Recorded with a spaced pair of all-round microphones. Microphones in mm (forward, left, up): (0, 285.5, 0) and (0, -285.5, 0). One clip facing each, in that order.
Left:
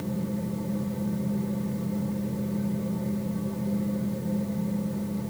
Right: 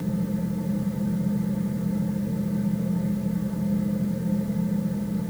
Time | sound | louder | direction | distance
0.0 | a fan | right 3 dB | 40° right (ahead or behind) | 1.2 m